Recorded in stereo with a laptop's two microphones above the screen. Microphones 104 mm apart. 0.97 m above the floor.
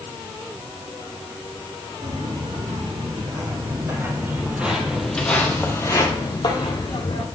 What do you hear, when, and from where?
2.0 s footsteps: 50° right (ahead or behind), 3 m; by 7.2 s 55° left (ahead or behind), 2 m